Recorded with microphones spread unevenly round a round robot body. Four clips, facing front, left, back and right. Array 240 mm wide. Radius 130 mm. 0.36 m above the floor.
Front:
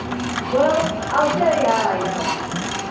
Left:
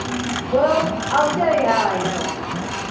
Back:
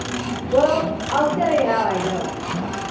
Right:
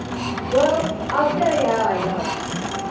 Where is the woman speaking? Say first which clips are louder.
Left 1 dB, even; straight behind, 1.7 m; by 2.3 s 105° left, 1.5 m.